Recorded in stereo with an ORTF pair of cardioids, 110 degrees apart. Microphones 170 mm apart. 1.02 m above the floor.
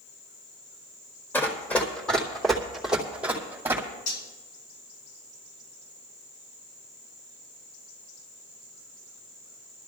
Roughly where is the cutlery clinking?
Ahead left.